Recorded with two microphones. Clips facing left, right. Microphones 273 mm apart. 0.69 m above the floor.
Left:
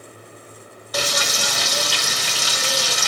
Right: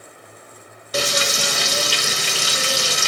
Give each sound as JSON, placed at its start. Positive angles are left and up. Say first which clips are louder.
{"t": 0.9, "sound": "frying", "louder": "right 3 dB", "side_deg": -30, "distance_m": 0.8}